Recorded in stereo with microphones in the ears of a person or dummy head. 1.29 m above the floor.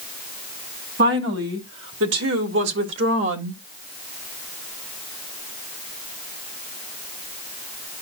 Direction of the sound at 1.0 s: 60° right (ahead or behind).